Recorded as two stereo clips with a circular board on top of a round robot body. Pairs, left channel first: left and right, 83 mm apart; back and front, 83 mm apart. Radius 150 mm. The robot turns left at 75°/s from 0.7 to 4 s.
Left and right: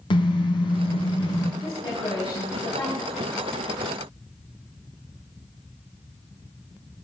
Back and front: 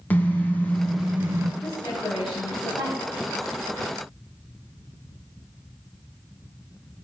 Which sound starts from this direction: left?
A car horn, at 0.1 s.